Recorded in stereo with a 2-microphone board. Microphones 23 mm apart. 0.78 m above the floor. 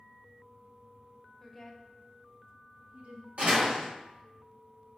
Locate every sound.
1.4 s a woman speaking: 10° left (ahead or behind), 0.7 m; by 3.3 s 60° right (ahead or behind), 0.7 m
3.4 s a door slam: 55° right (ahead or behind), 1.7 m